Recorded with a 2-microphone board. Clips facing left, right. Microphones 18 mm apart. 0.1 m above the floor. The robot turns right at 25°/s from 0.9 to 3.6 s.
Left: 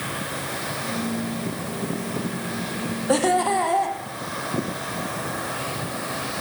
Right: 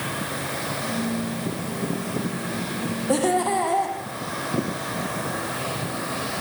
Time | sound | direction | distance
3.1 | laughter | 15° left (ahead or behind) | 5 m